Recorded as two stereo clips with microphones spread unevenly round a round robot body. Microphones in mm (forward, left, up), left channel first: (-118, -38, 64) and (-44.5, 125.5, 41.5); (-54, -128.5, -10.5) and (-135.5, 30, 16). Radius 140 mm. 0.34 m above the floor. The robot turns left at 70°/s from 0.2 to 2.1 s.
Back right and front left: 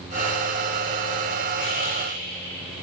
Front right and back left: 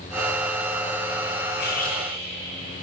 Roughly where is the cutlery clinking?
Right.